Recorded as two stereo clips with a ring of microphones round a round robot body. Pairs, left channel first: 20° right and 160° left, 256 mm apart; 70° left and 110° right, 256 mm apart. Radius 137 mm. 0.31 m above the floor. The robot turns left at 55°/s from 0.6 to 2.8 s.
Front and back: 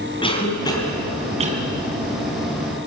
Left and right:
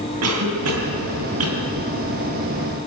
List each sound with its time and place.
0.2 s a cough: 90° right, 4 m; by 1.6 s 145° right, 4 m